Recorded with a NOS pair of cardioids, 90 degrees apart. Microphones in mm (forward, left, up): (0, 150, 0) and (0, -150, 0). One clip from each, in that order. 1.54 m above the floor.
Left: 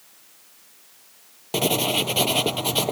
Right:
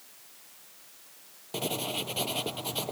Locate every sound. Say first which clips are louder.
1.5 s writing: left 11 dB; 65° left